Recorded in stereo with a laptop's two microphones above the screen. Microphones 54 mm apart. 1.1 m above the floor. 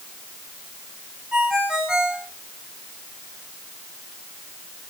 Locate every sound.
1.3 s a ringtone: 10° right (ahead or behind), 4 m